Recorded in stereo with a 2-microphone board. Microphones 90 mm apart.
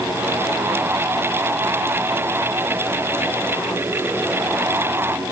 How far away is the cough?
No cough in this recording.